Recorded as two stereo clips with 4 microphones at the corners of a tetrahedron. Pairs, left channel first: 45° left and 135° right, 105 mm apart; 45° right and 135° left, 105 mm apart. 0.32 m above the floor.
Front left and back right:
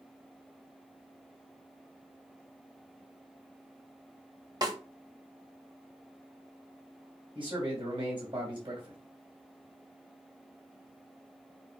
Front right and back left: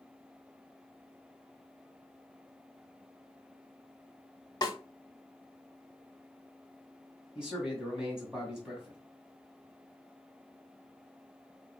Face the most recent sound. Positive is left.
turn(degrees=-145)